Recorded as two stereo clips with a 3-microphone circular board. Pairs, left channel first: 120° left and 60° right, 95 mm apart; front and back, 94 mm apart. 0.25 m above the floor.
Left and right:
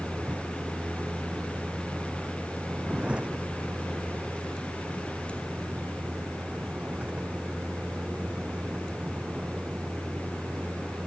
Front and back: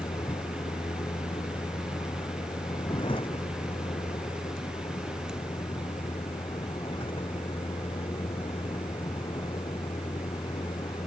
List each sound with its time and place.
0.0 s a vehicle: 20° left